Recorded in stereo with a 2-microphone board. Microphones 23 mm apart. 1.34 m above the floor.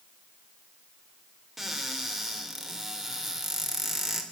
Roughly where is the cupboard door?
Centre.